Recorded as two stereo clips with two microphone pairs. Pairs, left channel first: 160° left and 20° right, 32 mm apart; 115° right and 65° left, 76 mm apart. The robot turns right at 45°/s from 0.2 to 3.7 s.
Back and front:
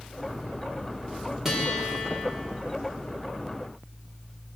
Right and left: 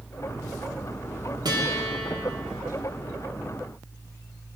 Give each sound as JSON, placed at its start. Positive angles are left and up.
{"t": 1.4, "sound": "a guitar", "azimuth_deg": 55, "distance_m": 5.0}